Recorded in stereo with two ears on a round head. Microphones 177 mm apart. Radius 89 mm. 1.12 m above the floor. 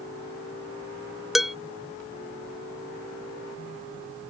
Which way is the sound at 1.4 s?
Centre (ahead or behind).